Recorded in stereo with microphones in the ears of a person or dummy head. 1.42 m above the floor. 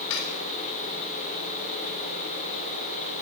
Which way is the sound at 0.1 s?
80° left.